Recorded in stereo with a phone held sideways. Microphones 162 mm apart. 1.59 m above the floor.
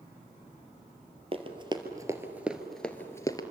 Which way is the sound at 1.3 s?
35° right (ahead or behind).